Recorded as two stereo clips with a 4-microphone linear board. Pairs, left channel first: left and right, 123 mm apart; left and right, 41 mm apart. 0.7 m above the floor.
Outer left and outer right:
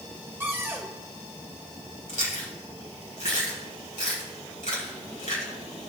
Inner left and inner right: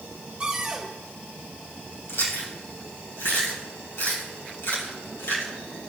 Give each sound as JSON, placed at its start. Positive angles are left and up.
{"t": 0.4, "sound": "a cupboard door", "side_deg": -20, "distance_m": 2.0}
{"t": 2.1, "sound": "chewing", "side_deg": 80, "distance_m": 3.5}